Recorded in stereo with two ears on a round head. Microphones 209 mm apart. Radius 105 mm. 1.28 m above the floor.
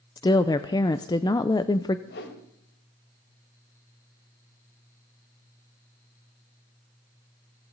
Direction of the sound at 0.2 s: 15° left (ahead or behind).